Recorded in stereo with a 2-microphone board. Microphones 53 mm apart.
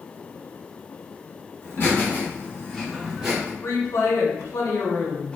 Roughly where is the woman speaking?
Left.